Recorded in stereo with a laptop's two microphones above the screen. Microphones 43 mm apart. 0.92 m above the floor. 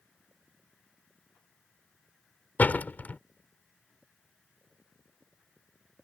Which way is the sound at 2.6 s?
45° left (ahead or behind).